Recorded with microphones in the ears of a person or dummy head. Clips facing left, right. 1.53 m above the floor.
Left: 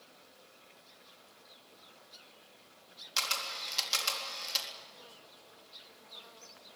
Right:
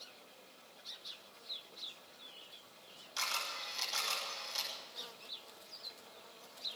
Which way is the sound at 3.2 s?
75° left (ahead or behind).